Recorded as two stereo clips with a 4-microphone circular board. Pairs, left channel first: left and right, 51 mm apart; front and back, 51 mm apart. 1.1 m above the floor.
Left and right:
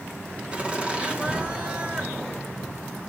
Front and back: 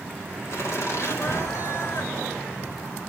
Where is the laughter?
25° right, 3 m.